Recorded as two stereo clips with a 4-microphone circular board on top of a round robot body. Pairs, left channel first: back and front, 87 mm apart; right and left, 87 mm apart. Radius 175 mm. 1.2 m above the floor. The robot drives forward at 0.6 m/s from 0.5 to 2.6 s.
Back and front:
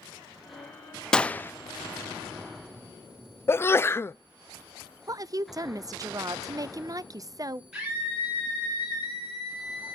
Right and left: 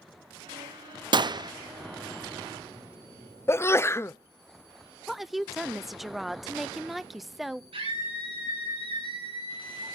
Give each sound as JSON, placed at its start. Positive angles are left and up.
{"t": 1.1, "sound": "a gunshot", "azimuth_deg": 100, "distance_m": 0.8}
{"t": 3.5, "sound": "a sneeze", "azimuth_deg": -135, "distance_m": 0.5}
{"t": 5.1, "sound": "a woman speaking", "azimuth_deg": 5, "distance_m": 0.6}
{"t": 7.7, "sound": "a scream", "azimuth_deg": 85, "distance_m": 8.5}